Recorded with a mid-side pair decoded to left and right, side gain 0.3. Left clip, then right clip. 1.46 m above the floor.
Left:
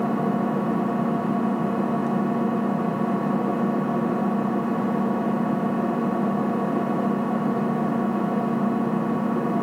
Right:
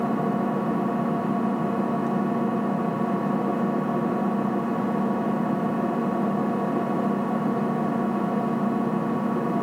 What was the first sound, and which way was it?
An engine running, straight ahead.